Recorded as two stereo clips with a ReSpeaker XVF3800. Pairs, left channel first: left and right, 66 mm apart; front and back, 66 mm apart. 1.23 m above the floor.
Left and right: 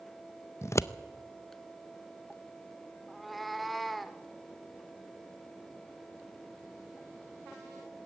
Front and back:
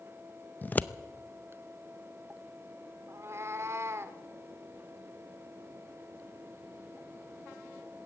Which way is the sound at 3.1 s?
Straight behind.